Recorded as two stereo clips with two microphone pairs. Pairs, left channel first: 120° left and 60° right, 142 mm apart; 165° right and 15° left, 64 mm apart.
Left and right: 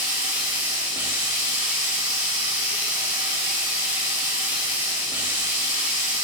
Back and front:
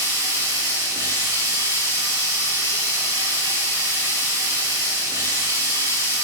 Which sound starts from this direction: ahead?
Running water, at 0.0 s.